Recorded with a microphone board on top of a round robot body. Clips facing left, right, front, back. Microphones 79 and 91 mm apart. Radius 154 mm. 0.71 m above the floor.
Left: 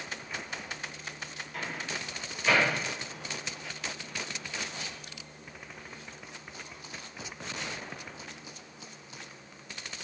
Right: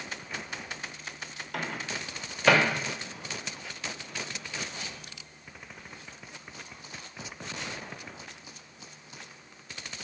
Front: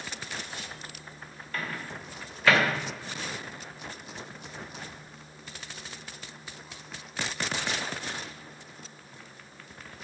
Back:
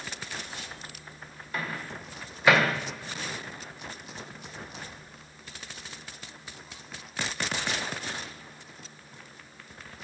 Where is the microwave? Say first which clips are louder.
Right 2 dB, back 1 dB; 105° right, 1.0 m.